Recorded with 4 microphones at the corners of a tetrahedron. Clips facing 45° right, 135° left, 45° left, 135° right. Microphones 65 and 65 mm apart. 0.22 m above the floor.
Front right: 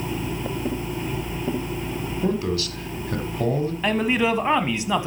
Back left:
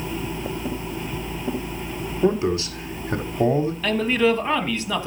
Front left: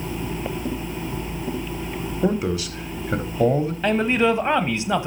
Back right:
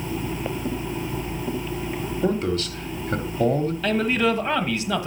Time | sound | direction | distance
2.2 | a man speaking | 110° left | 1.0 m
3.8 | a man speaking | 5° left | 1.1 m